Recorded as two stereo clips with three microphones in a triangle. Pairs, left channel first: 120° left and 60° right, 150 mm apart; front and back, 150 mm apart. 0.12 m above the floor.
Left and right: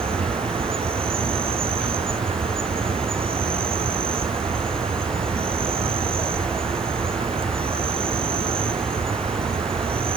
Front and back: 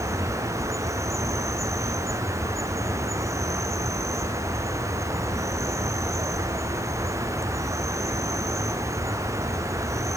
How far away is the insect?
About 1.1 m.